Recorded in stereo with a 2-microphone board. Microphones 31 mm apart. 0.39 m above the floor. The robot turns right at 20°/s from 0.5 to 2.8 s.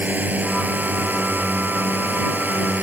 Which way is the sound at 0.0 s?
115° right.